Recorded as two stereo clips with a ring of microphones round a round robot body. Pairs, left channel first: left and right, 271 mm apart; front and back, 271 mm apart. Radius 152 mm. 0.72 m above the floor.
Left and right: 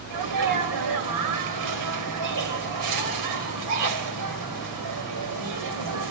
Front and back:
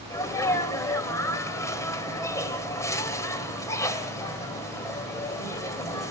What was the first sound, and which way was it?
A sneeze, 80° right.